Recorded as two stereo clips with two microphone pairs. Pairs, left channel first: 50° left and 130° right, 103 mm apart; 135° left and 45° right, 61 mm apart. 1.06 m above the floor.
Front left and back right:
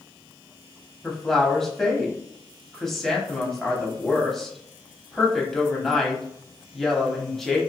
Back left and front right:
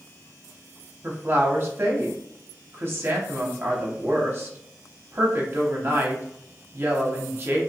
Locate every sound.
1.0 s a woman speaking: 35° right, 0.8 m